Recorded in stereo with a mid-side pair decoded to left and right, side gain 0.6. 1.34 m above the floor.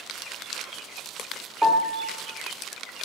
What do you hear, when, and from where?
1.6 s a piano: straight ahead, 2.5 m